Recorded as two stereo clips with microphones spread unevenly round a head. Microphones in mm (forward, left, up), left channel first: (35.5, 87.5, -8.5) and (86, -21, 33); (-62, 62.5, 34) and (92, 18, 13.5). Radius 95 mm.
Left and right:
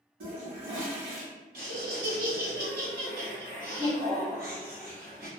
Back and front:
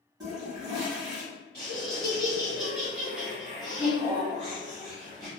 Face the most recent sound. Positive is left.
turn(degrees=-75)